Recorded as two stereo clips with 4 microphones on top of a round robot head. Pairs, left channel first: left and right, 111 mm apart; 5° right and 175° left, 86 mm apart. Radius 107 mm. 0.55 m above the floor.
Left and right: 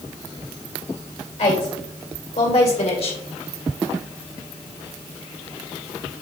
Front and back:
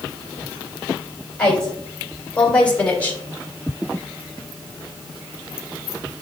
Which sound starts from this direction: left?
A woman speaking, at 1.4 s.